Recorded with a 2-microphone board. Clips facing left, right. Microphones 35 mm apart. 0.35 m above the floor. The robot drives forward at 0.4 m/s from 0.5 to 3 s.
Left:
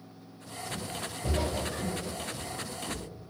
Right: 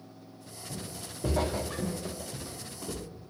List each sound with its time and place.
0.7 s footsteps: 50° right (ahead or behind), 0.7 m; by 3.1 s 60° right (ahead or behind), 0.6 m